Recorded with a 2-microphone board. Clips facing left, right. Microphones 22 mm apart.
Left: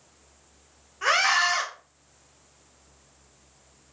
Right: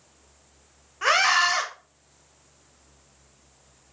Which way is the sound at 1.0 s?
15° right (ahead or behind).